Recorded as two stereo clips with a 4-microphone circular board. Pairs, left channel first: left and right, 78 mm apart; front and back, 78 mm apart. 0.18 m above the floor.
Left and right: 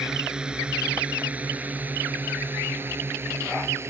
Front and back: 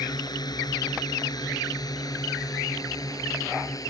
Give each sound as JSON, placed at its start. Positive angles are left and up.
{"t": 0.0, "sound": "a drone", "azimuth_deg": -10}